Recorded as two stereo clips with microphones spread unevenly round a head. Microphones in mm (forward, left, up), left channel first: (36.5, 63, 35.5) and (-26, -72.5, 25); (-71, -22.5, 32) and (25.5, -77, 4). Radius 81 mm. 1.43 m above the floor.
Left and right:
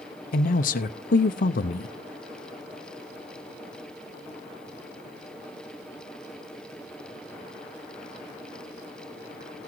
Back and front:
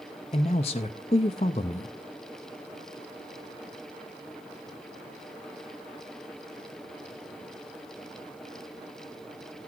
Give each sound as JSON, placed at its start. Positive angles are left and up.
{"t": 0.3, "sound": "a man speaking", "azimuth_deg": 95, "distance_m": 0.5}